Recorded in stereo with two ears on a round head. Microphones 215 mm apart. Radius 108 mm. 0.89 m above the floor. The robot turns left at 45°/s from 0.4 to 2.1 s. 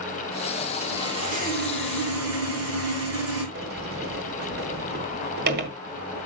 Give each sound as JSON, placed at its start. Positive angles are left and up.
{"t": 0.8, "sound": "sawing", "azimuth_deg": -5, "distance_m": 7.0}
{"t": 3.5, "sound": "a sliding door", "side_deg": -40, "distance_m": 1.9}